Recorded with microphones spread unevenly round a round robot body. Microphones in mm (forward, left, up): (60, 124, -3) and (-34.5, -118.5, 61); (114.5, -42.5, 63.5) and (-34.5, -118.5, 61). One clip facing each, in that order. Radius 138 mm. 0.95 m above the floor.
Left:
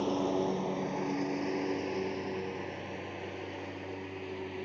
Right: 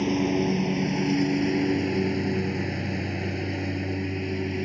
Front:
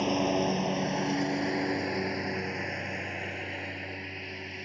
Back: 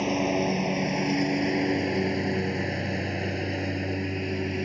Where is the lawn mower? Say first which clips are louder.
Right 7 dB, back 2 dB; 70° right; by 4.7 s 125° right.